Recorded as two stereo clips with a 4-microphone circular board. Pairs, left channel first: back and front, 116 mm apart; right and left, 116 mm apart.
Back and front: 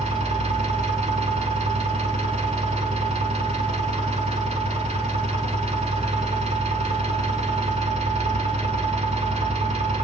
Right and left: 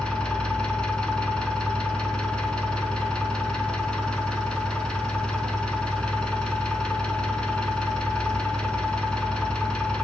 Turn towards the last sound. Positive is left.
turn(degrees=-10)